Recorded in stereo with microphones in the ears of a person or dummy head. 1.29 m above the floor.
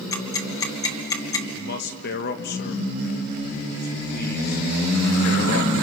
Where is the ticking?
20° left (ahead or behind), 2 m.